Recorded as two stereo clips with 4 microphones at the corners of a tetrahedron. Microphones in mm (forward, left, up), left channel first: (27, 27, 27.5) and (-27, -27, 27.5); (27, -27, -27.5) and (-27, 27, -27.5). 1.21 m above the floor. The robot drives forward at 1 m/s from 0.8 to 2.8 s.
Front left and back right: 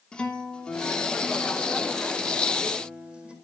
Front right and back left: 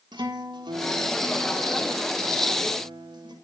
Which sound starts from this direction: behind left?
A guitar, at 0.1 s.